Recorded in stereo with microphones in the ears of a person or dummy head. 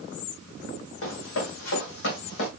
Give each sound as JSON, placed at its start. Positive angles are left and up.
{"t": 1.0, "sound": "running footsteps", "side_deg": 75, "distance_m": 4.5}